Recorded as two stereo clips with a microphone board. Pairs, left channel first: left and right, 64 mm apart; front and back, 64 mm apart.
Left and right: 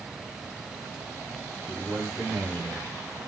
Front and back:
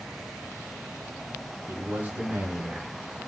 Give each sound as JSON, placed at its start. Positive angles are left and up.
{"t": 1.7, "sound": "a man speaking", "azimuth_deg": 175, "distance_m": 1.2}